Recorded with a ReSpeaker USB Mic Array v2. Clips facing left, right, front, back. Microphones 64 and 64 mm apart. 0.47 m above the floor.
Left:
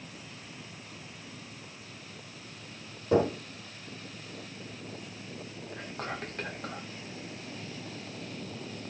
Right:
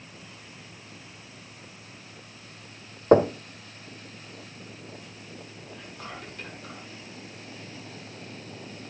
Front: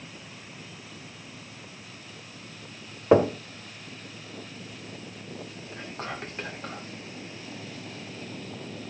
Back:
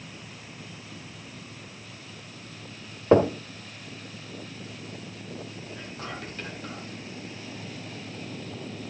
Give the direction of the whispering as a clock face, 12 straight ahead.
10 o'clock.